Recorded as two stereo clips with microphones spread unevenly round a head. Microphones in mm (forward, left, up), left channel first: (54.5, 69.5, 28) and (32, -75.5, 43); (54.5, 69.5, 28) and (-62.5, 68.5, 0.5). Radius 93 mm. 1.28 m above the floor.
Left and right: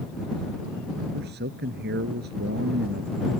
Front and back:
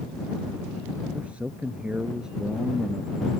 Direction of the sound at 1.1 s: 95° right.